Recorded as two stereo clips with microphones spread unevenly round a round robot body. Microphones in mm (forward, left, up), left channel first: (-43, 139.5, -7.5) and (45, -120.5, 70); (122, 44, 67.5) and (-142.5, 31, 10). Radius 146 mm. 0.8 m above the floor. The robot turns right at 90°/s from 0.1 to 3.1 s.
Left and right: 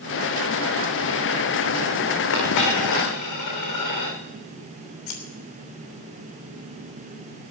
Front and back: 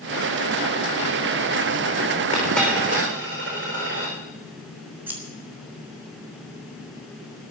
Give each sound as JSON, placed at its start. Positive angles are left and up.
{"t": 2.3, "sound": "a dropped coin", "azimuth_deg": 65, "distance_m": 5.5}
{"t": 5.1, "sound": "scissors", "azimuth_deg": 105, "distance_m": 3.0}